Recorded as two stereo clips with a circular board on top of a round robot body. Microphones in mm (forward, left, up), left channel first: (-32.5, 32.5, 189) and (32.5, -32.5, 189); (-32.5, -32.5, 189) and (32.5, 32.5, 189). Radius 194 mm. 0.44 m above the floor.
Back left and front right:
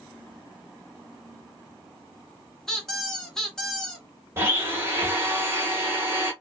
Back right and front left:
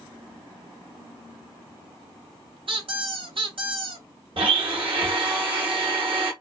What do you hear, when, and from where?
2.7 s a squeak: 50° left, 1.2 m
4.4 s a blender: 20° left, 1.2 m